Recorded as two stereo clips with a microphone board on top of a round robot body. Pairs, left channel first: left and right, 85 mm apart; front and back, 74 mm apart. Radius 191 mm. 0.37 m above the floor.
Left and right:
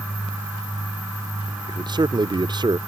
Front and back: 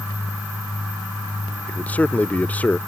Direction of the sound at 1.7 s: 70° right.